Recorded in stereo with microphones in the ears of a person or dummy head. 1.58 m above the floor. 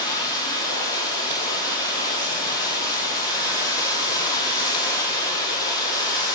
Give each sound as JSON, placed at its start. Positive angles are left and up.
{"t": 0.0, "sound": "running water", "side_deg": 15, "distance_m": 1.1}